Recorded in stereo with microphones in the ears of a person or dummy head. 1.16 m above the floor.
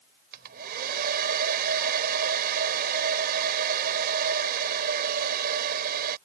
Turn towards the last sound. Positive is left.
turn(degrees=-60)  # may be behind; listen again after turning